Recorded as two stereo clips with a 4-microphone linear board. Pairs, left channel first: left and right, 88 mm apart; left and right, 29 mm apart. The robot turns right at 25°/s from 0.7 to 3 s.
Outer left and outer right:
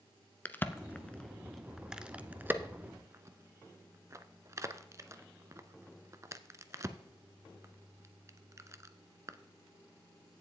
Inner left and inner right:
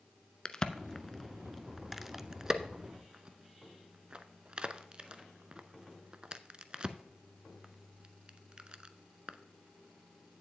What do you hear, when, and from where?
0.5 s a crack: 25° left (ahead or behind), 0.5 m; by 9.4 s 35° right (ahead or behind), 0.5 m